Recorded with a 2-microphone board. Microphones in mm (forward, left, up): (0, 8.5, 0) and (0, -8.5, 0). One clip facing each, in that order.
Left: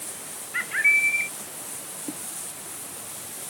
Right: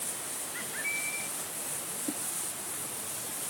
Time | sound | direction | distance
0.5 | a bird | 50° left (ahead or behind) | ?